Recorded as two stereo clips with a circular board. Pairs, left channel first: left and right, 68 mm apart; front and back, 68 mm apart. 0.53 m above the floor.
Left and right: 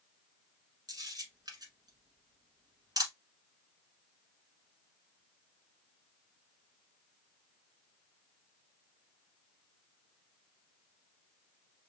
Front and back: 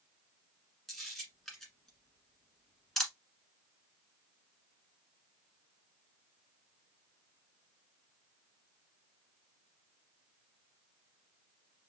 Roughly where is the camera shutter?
Right.